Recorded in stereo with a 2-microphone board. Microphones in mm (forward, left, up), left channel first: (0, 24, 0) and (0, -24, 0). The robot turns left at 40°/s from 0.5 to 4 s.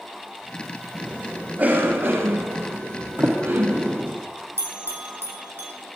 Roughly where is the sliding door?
Right.